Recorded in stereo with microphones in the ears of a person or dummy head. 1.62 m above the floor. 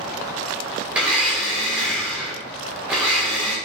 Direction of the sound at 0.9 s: 5° right (ahead or behind).